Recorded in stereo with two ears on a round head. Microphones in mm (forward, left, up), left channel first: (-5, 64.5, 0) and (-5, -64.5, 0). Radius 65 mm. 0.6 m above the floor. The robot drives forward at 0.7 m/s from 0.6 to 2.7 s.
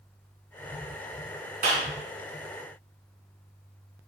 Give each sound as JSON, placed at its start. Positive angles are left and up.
{"t": 1.6, "sound": "a clap", "side_deg": -55, "distance_m": 5.0}